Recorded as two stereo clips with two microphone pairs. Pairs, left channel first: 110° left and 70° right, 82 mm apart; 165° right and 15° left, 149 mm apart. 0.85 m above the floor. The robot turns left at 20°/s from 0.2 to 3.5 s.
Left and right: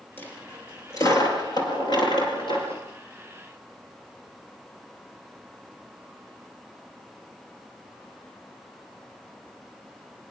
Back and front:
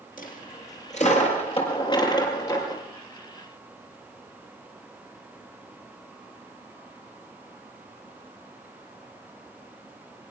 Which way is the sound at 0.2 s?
175° left.